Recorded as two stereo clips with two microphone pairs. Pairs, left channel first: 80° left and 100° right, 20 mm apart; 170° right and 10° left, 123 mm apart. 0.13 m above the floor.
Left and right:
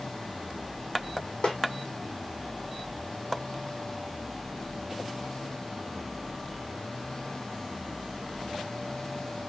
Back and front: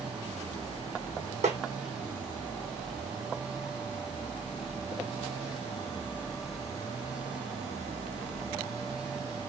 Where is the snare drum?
35° left, 1.2 m.